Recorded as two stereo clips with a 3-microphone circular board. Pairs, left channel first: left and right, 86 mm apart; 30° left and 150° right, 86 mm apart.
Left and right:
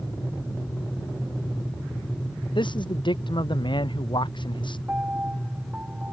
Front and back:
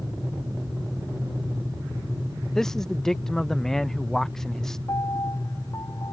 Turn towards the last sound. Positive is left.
turn(degrees=-20)